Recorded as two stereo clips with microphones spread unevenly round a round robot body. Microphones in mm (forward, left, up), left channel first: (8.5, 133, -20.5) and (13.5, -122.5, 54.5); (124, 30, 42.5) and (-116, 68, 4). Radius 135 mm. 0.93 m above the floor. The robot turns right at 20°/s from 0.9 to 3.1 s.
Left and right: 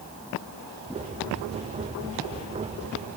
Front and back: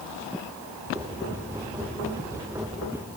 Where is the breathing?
I don't hear breathing.